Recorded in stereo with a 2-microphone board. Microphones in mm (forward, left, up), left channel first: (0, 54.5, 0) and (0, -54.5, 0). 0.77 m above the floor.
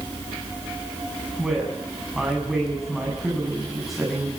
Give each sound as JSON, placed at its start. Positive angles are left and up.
{"t": 1.4, "sound": "a woman speaking", "side_deg": 0, "distance_m": 8.0}